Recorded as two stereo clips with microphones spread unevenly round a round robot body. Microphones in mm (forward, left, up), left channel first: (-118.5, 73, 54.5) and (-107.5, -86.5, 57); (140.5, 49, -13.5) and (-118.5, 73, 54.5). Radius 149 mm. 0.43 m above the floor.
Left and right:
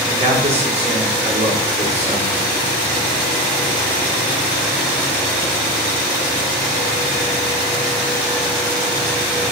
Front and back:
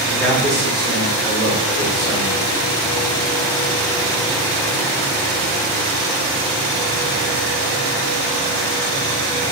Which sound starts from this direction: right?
A man speaking, at 0.1 s.